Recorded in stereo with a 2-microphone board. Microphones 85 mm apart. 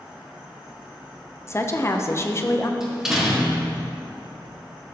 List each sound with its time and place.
0.0 s an insect: 20° right (ahead or behind), 2.5 m
1.5 s a woman speaking: 35° left (ahead or behind), 0.7 m
2.8 s a door slam: 5° right (ahead or behind), 1.8 m